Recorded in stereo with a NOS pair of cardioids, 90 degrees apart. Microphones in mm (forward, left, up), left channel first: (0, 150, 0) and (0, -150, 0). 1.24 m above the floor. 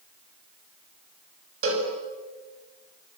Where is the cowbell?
45° right, 6 m.